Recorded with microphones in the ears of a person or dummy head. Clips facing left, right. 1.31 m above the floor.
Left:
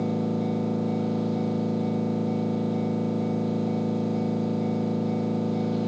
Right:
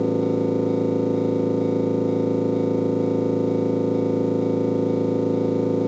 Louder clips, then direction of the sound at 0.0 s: Right 6 dB; 55° right (ahead or behind).